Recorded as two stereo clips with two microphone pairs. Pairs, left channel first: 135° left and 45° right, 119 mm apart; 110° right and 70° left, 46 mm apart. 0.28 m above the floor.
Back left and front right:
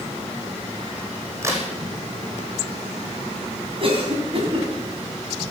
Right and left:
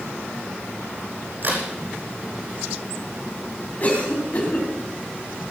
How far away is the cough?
About 2 m.